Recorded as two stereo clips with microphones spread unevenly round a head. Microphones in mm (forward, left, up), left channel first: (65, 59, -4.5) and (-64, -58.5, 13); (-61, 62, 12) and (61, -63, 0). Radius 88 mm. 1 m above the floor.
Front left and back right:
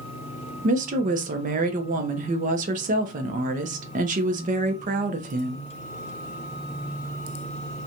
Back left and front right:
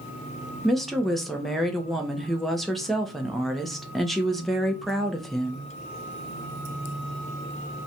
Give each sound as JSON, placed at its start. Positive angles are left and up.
{"t": 0.6, "sound": "a woman speaking", "azimuth_deg": -130, "distance_m": 0.5}